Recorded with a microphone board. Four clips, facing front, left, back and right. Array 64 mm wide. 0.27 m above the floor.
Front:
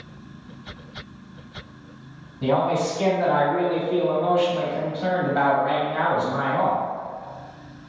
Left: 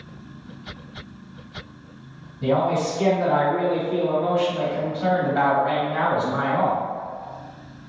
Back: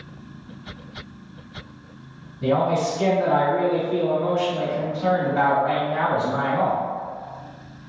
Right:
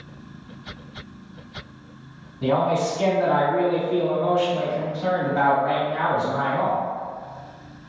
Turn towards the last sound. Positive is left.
turn(degrees=85)